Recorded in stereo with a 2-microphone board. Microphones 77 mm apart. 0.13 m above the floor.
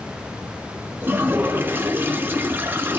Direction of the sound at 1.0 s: 25° right (ahead or behind).